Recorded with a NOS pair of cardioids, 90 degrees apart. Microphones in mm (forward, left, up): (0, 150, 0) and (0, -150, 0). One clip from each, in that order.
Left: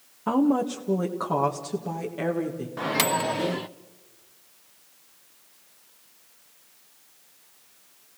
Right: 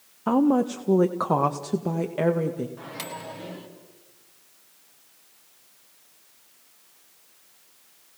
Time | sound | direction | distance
0.3 | a woman speaking | 15° right | 1.2 m
2.8 | a microwave | 65° left | 0.9 m